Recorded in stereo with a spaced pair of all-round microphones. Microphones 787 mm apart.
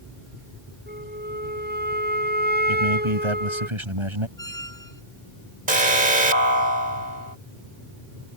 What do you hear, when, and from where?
0.9 s a flute: 10° right (ahead or behind)
2.7 s a man speaking: 35° right (ahead or behind)
4.4 s a squeak: 45° left (ahead or behind)
5.7 s an alarm: 80° right